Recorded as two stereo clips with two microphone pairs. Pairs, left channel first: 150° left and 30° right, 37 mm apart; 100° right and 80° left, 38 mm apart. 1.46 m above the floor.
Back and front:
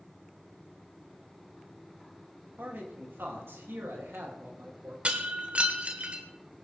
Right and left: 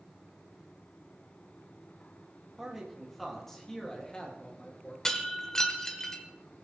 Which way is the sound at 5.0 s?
35° right.